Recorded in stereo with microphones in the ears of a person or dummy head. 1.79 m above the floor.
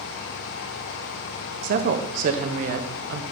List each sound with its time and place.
1.6 s a woman speaking: 45° right (ahead or behind), 0.8 m